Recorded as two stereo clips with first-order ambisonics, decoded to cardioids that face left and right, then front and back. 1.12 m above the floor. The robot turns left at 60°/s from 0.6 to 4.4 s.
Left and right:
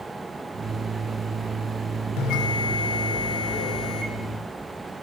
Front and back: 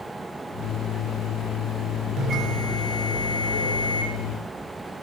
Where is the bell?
125° left, 2.5 m; by 4.1 s 10° left, 2.5 m.